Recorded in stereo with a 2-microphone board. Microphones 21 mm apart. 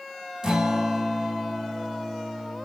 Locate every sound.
0.4 s a guitar: 40° right (ahead or behind), 1.9 m